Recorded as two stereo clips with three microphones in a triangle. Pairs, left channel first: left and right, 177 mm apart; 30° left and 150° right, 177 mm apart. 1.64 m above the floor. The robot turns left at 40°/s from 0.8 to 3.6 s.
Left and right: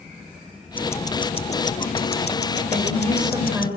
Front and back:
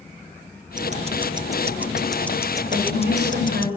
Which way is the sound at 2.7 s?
135° right.